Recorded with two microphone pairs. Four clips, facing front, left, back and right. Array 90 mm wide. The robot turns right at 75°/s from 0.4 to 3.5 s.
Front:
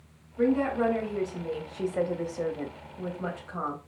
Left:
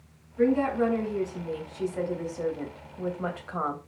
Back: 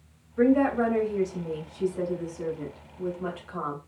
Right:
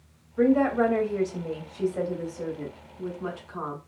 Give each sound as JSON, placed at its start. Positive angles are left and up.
{"t": 0.4, "sound": "a woman speaking", "azimuth_deg": -140, "distance_m": 3.5}